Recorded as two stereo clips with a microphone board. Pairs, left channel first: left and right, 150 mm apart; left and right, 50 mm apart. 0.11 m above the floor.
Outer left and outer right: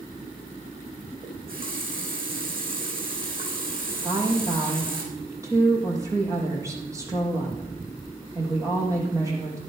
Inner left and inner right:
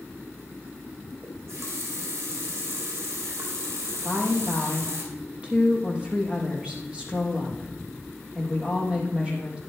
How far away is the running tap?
About 4 m.